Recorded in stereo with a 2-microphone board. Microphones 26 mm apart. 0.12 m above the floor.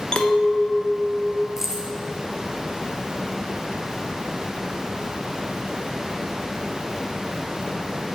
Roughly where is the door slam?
I don't hear a door slam.